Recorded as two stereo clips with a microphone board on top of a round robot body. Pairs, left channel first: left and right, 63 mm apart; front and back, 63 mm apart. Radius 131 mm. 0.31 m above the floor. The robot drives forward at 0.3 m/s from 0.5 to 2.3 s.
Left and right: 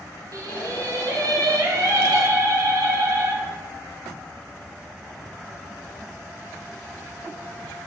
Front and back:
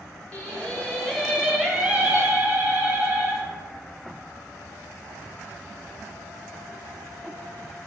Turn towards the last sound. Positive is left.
turn(degrees=-120)